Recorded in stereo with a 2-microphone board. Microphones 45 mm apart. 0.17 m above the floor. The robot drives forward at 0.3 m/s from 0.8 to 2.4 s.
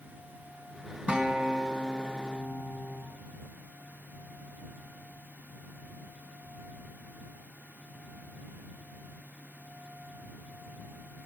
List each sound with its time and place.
1.1 s a guitar: 30° right (ahead or behind), 1.2 m; by 3.0 s 25° right (ahead or behind), 1.4 m